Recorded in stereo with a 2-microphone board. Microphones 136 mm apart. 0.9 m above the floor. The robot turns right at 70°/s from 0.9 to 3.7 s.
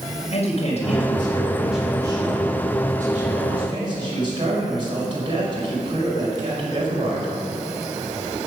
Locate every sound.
0.3 s a man speaking: 125° left, 5.5 m; by 7.3 s 40° right, 5.5 m